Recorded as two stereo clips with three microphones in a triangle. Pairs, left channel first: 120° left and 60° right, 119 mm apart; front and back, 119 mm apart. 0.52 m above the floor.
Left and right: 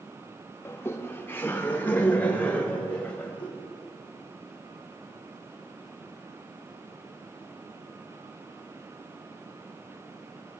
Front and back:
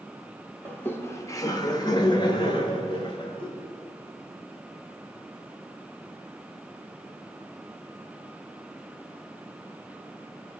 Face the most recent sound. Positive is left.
turn(degrees=40)